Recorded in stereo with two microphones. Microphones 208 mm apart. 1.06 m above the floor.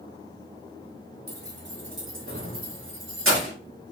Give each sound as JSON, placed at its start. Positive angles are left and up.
{"t": 1.3, "sound": "keys jangling", "side_deg": -50, "distance_m": 0.9}